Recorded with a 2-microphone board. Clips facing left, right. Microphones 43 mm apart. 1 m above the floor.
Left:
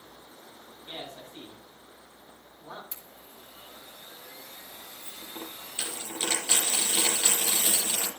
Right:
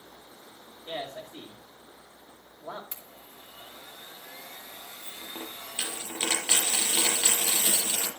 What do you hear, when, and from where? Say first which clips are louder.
0.8 s a man speaking: right 5 dB; 80° right, 4.5 m
2.9 s a blender: right 1 dB; 55° right (ahead or behind), 3 m
5.0 s a dropped coin: right 1 dB; 25° right (ahead or behind), 3 m